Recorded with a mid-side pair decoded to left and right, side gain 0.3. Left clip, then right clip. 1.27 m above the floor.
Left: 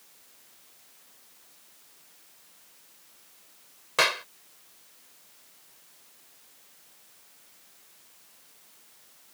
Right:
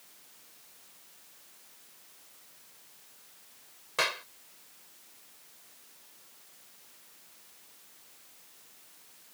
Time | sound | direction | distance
4.0 | a clap | 60° left | ?